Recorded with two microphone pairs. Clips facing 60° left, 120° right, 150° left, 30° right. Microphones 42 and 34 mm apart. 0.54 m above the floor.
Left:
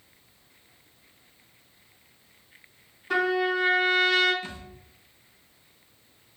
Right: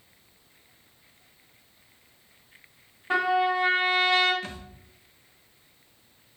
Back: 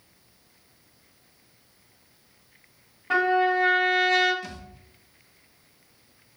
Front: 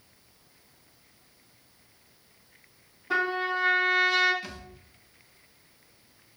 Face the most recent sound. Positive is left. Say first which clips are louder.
# right 1 dB, back 2 dB
turn(degrees=-110)